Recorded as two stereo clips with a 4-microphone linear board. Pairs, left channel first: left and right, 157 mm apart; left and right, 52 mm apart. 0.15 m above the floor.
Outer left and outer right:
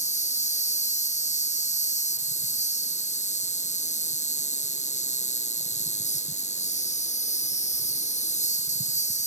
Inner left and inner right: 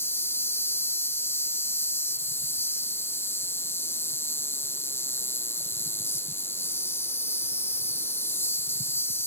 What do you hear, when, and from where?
0.0 s an insect: 50° left (ahead or behind)